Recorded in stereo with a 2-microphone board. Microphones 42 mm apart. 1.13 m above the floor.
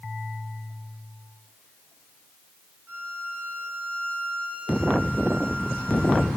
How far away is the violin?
About 5 m.